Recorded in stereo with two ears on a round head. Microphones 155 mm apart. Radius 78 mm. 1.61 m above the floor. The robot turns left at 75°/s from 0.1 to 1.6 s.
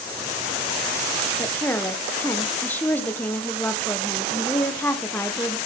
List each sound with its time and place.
1.4 s a woman speaking: 15° left (ahead or behind), 0.5 m; by 5.6 s 10° left (ahead or behind), 0.5 m